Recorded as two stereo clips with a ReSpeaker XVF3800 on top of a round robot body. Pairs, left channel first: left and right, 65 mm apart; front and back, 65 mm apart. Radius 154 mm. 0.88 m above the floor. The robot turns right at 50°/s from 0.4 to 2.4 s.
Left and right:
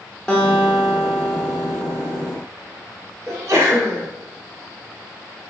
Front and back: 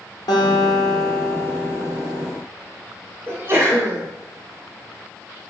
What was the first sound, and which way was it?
A guitar, 10° left.